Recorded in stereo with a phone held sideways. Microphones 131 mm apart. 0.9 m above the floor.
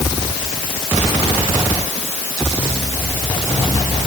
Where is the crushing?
I don't hear crushing.